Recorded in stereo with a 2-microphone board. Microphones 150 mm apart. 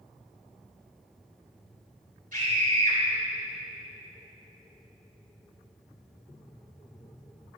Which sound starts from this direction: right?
A scream, at 2.3 s.